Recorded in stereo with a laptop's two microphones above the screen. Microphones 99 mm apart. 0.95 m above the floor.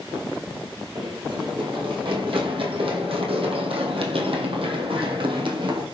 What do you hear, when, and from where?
0.9 s running footsteps: 50° right (ahead or behind), 2.5 m; by 5.9 s 55° right (ahead or behind), 2.5 m